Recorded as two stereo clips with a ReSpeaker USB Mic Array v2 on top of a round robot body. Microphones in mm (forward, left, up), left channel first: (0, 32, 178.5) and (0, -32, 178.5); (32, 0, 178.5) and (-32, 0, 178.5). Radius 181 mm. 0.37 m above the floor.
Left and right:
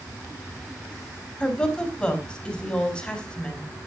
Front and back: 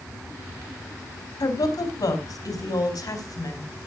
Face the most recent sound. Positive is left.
turn(degrees=15)